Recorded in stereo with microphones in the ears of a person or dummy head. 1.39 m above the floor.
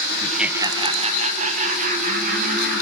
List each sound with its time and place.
0.2 s laughter: 15° left (ahead or behind), 0.6 m; by 2.8 s 55° right (ahead or behind), 3 m